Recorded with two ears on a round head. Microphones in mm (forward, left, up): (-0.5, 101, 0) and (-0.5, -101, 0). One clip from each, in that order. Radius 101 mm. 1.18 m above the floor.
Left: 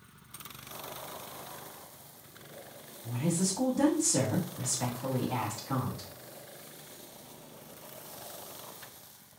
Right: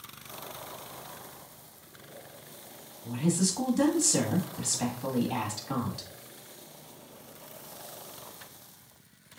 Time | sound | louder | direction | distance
3.0 | a woman speaking | right 3 dB | 85° right | 1.6 m